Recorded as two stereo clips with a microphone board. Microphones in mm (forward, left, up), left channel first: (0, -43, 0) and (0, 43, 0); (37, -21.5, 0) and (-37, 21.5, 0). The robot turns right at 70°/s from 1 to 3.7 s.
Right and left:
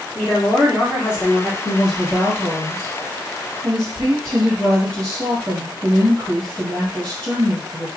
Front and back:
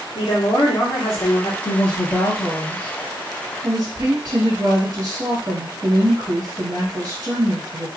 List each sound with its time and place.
0.1 s a woman speaking: 40° right, 1.2 m; by 1.6 s straight ahead, 1.2 m
1.6 s a woman speaking: 15° right, 1.5 m; by 7.9 s 125° left, 1.5 m